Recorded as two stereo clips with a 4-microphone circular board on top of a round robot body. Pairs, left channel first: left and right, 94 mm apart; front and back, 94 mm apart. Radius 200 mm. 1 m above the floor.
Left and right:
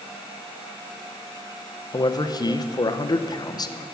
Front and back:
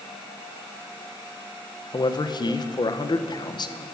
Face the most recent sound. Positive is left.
turn(degrees=40)